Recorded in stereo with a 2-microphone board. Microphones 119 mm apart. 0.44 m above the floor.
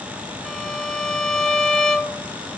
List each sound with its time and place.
0.5 s a violin: 5° left (ahead or behind), 0.9 m